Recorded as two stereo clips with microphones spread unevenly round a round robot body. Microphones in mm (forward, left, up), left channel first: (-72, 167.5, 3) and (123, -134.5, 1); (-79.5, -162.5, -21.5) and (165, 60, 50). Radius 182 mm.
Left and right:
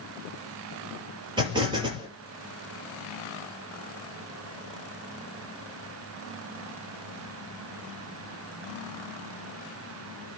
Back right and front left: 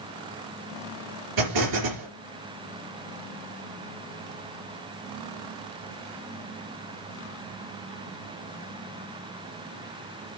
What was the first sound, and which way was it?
An explosion, 20° left.